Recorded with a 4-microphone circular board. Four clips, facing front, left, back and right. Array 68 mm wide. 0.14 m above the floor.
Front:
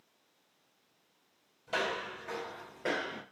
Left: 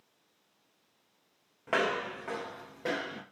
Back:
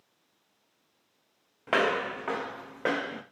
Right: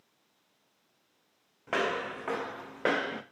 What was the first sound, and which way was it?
Footsteps, 170° left.